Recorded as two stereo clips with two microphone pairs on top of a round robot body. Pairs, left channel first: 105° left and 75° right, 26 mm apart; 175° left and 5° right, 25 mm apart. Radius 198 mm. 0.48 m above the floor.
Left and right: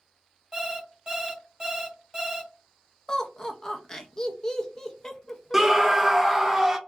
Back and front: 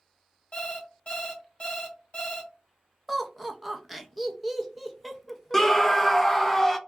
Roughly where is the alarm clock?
Behind right.